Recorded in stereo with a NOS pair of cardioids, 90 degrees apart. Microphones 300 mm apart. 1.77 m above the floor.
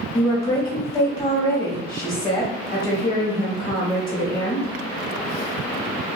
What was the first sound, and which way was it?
A woman speaking, 10° left.